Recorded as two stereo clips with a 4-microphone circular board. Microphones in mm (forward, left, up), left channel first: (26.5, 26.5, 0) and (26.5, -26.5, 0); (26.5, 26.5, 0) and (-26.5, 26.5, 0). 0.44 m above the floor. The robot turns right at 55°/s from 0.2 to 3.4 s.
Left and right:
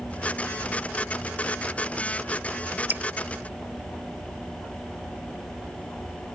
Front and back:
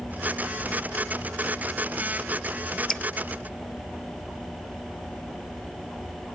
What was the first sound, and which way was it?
Dripping, 75° right.